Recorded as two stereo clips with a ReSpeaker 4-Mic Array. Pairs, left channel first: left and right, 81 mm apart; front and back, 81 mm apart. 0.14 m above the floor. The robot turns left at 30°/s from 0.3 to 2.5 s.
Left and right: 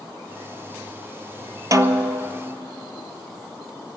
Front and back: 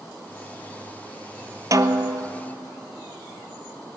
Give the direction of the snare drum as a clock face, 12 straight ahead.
4 o'clock.